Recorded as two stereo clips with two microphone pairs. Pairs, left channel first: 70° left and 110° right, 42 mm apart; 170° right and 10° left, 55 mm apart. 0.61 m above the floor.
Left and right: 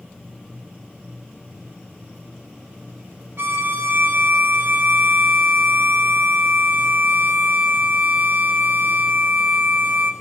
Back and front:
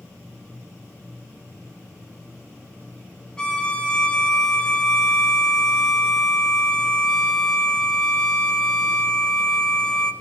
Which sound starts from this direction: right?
A violin, at 3.4 s.